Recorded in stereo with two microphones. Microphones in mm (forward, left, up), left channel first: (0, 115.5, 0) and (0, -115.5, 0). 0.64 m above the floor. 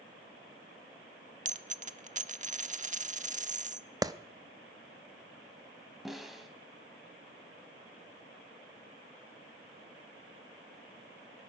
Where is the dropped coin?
35° right (ahead or behind), 0.6 m.